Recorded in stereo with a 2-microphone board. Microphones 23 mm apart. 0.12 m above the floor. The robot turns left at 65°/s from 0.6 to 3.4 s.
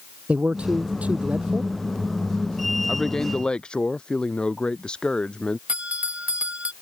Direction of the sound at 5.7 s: 60° right (ahead or behind).